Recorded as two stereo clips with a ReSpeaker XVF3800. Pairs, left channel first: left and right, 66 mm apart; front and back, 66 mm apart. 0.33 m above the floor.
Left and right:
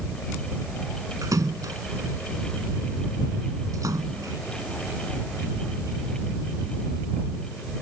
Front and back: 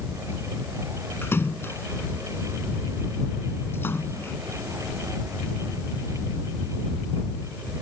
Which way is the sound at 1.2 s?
55° right.